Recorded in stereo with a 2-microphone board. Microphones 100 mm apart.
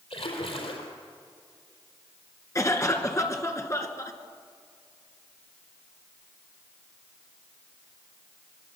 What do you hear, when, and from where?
0.1 s a splash: 80° left, 4.5 m
2.5 s a cough: 30° left (ahead or behind), 2.5 m